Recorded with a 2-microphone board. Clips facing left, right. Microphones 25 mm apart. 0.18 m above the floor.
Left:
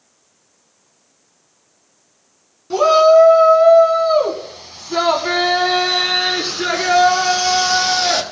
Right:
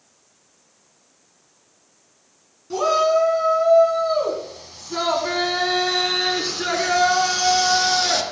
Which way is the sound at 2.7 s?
30° left (ahead or behind).